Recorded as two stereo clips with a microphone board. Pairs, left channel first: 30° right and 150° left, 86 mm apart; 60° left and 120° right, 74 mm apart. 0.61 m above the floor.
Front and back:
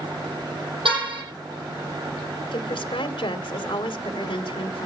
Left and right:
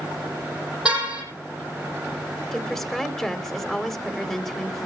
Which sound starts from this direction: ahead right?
A woman speaking, at 2.5 s.